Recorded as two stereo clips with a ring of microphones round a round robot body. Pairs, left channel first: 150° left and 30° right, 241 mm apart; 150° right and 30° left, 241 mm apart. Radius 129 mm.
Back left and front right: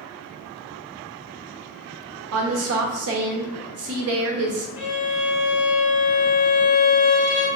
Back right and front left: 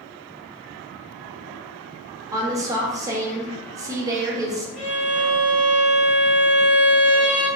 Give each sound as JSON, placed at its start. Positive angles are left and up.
{"t": 2.3, "sound": "a woman speaking", "azimuth_deg": -45, "distance_m": 0.7}
{"t": 4.8, "sound": "a violin", "azimuth_deg": -160, "distance_m": 1.5}